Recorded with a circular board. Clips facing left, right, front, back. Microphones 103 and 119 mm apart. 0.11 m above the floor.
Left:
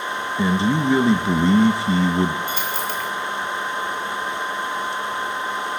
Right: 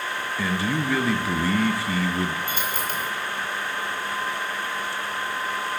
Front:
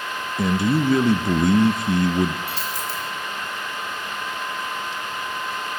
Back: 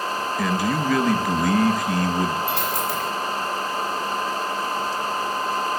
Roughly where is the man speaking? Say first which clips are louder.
Left 7 dB, front 4 dB; ahead left.